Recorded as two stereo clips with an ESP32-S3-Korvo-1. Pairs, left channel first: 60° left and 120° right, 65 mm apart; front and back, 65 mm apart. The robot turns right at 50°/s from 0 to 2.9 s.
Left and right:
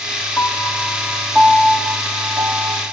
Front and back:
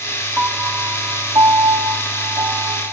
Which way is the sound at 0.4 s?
115° left.